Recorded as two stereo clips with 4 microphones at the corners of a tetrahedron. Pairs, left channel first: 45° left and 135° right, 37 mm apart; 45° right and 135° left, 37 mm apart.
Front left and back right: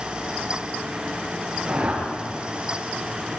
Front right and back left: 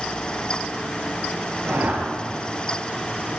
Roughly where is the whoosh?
Behind.